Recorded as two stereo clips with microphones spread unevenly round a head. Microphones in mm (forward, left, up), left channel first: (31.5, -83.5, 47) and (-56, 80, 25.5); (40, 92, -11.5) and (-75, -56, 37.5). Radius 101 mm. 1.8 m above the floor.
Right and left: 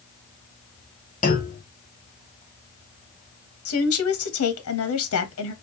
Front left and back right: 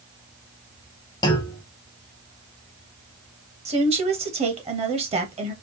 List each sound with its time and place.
1.2 s a clunk: 30° right, 1.2 m
3.6 s a woman speaking: 65° right, 1.3 m